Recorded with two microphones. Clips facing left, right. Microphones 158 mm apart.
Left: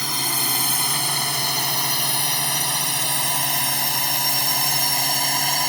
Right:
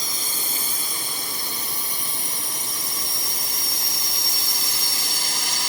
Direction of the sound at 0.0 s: 70° left (ahead or behind).